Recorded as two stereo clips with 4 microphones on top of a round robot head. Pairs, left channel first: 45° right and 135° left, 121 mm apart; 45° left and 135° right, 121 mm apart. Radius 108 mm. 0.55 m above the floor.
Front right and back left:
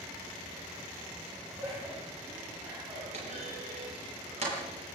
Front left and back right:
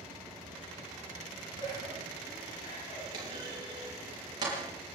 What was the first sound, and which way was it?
Laughter, 60° left.